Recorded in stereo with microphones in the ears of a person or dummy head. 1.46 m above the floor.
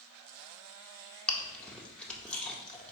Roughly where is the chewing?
Centre.